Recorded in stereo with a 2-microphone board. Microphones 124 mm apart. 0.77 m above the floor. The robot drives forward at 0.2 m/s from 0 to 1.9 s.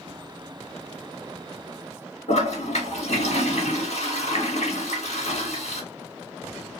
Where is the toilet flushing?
60° left (ahead or behind), 1.2 m.